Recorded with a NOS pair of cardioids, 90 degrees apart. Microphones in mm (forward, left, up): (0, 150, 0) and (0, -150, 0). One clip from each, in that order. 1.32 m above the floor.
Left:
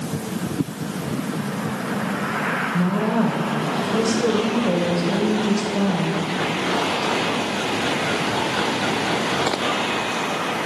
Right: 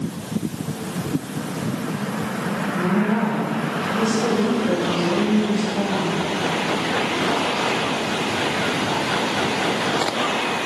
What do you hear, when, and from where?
2.7 s a woman speaking: 50° left, 1.3 m